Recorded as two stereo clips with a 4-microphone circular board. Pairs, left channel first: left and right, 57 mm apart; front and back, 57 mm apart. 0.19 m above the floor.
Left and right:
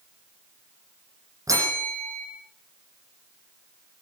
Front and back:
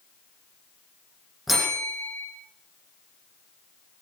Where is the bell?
95° right, 10 m.